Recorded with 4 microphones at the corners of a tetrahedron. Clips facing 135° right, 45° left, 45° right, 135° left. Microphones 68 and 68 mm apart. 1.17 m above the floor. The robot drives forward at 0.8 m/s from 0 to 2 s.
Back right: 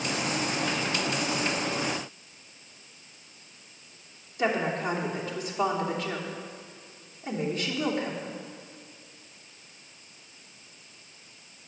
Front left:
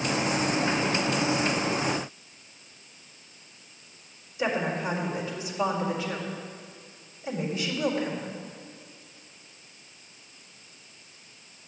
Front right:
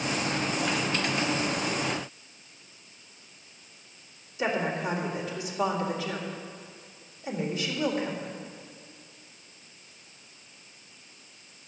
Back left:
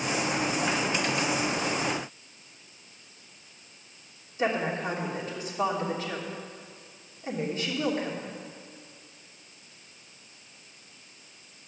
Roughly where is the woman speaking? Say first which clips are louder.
Back right 1 dB, even; behind.